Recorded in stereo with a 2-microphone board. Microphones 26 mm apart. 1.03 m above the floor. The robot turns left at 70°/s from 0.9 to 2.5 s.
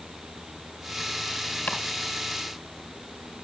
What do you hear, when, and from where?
1.7 s chopping: 60° left (ahead or behind), 3 m; by 1.8 s 70° left (ahead or behind), 3 m